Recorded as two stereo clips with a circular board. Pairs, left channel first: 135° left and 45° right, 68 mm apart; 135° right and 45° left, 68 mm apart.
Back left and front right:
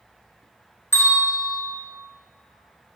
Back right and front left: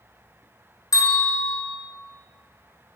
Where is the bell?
165° right, 1.6 m.